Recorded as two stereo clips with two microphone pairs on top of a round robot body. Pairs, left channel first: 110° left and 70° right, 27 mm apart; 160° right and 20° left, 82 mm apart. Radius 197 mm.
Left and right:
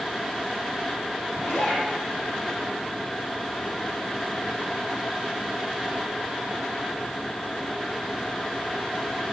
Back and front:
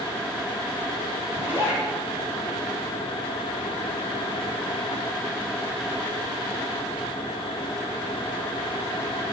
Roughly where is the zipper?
Left.